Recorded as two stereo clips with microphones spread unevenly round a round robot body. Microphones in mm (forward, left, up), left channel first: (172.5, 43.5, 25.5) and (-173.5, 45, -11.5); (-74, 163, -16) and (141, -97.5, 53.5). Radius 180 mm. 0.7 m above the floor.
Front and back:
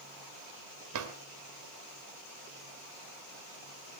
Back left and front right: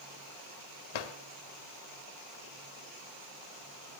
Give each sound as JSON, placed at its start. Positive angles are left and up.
{"t": 0.9, "sound": "a drawer", "azimuth_deg": 140, "distance_m": 1.9}